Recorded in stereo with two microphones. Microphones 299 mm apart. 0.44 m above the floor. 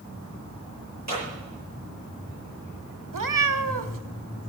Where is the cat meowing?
85° right, 0.7 m.